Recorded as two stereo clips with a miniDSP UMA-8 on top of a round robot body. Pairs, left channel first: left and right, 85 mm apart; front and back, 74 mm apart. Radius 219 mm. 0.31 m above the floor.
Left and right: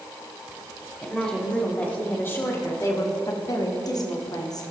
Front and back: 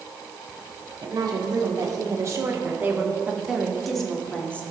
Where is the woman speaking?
170° left, 2.5 m; by 4.6 s 65° left, 2 m.